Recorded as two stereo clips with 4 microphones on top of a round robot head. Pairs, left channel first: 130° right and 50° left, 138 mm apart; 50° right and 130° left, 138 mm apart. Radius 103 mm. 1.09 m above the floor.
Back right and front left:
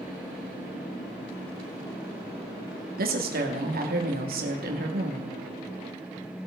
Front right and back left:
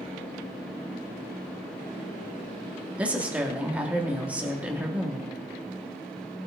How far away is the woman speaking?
About 2 m.